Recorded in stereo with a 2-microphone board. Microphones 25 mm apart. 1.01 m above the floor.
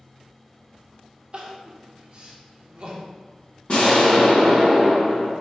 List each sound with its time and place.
1.3 s crying: 40° right (ahead or behind), 0.5 m
3.7 s an explosion: 50° left (ahead or behind), 0.9 m